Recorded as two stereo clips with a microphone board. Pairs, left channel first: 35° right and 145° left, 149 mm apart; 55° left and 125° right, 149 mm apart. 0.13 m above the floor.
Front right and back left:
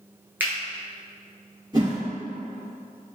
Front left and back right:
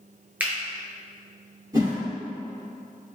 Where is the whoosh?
170° right, 1.6 m.